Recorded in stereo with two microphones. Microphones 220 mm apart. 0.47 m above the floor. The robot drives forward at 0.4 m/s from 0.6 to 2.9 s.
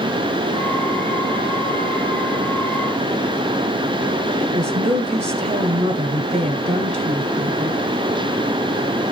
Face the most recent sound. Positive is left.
turn(degrees=-30)  # may be behind; listen again after turning